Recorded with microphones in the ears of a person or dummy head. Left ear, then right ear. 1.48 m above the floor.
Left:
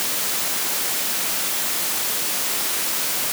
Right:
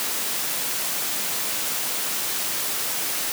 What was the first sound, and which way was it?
Only background noise.